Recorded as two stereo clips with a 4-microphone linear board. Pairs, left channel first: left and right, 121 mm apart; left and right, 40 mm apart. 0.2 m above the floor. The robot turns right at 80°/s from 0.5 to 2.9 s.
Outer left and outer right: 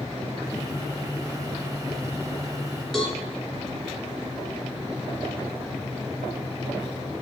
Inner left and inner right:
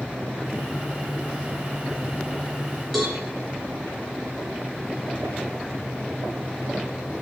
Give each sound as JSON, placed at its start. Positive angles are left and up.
{"t": 2.9, "sound": "a cowbell", "side_deg": 5, "distance_m": 2.5}